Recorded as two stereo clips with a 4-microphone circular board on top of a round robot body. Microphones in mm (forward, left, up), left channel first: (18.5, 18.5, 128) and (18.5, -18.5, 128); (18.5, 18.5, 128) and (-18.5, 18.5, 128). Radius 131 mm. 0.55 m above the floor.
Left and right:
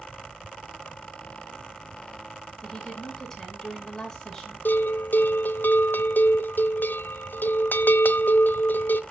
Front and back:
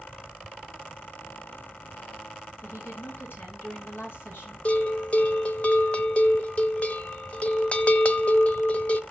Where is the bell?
55° left, 0.9 m.